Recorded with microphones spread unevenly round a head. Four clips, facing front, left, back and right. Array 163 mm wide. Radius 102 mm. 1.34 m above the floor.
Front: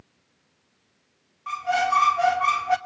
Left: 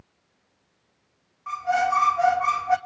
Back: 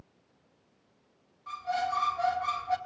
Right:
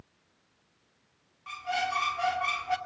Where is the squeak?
10° left, 1.7 m.